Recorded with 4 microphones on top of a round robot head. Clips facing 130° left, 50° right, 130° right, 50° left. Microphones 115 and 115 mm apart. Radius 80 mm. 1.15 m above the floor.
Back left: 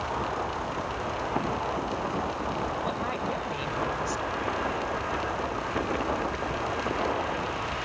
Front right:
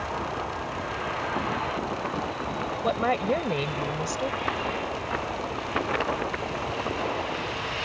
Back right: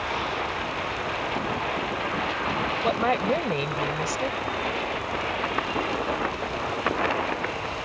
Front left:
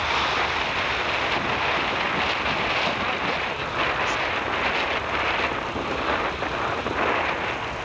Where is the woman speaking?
85° right.